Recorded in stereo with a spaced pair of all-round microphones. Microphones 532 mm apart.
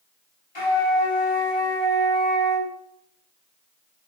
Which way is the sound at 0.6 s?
55° left (ahead or behind).